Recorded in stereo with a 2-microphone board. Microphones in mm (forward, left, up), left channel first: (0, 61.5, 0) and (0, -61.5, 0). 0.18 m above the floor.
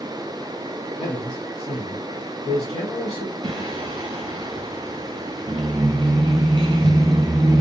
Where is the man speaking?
40° left (ahead or behind), 1.4 m.